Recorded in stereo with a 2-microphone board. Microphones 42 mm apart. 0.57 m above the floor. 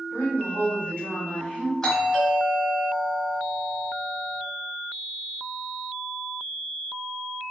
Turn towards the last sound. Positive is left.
turn(degrees=10)  # may be behind; listen again after turning